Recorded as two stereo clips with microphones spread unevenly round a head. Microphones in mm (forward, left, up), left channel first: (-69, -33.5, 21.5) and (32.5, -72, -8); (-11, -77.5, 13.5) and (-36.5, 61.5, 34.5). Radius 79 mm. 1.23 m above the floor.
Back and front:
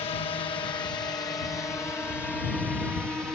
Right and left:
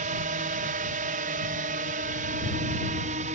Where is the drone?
110° left; by 3.4 s 60° left.